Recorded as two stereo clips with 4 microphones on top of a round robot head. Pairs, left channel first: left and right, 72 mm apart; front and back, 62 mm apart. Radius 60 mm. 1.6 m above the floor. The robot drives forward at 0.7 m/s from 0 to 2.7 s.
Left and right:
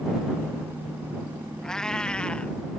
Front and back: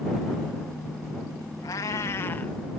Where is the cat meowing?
10° left; by 2.5 s 35° left.